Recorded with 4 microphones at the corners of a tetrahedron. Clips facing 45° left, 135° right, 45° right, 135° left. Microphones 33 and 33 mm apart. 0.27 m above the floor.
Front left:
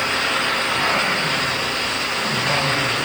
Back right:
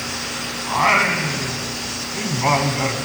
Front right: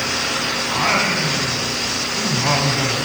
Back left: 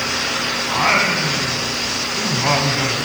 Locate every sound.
0.7 s singing: 145° right, 1.9 m